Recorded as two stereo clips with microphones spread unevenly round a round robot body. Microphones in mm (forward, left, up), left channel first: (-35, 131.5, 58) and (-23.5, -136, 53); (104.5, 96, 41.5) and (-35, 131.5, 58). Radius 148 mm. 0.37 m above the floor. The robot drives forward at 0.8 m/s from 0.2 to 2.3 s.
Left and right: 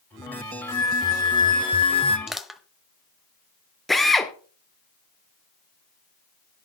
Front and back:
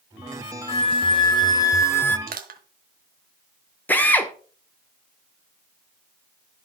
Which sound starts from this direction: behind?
Crushing, at 2.3 s.